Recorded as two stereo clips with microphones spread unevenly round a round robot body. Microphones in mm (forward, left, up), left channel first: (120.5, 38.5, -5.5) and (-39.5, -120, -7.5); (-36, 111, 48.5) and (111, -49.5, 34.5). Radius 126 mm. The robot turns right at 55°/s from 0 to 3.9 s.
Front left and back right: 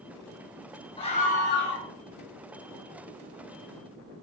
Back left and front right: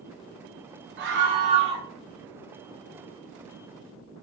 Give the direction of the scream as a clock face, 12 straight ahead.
1 o'clock.